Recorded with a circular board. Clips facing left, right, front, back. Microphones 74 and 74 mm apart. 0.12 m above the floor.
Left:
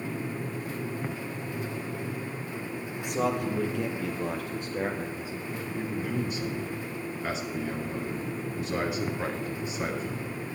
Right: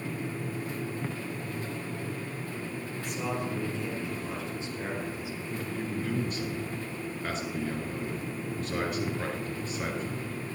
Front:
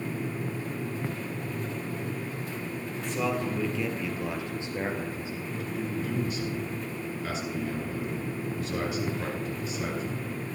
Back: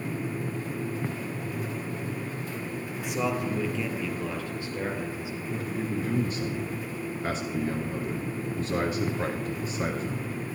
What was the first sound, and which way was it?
A man speaking, 105° left.